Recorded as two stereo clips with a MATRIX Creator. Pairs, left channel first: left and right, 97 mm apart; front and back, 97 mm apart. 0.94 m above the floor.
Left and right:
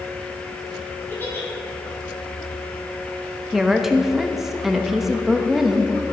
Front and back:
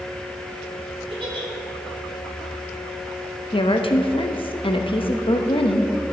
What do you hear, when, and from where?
1.1 s a giggle: 160° left, 2.5 m
3.5 s a woman speaking: straight ahead, 0.9 m